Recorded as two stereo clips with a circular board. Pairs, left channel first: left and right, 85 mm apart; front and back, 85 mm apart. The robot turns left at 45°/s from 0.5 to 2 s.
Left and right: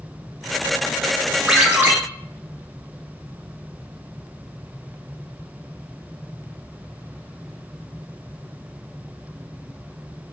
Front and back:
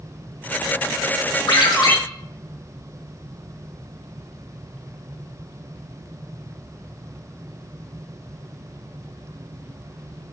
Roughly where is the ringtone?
Ahead.